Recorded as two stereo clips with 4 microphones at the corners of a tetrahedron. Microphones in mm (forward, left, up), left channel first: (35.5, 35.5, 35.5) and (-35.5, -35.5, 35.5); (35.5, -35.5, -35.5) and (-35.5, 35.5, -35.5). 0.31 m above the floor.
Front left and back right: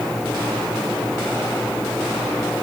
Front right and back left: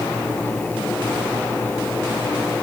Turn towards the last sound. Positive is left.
No sound to turn to.